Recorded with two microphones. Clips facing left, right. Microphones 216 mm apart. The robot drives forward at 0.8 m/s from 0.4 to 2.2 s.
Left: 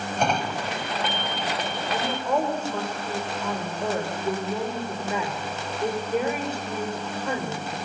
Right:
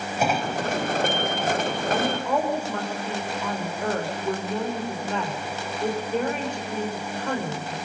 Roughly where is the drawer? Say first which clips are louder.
Right 2 dB; centre.